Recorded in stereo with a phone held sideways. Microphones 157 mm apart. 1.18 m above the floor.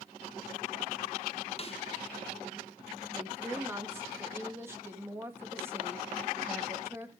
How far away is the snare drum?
About 0.6 m.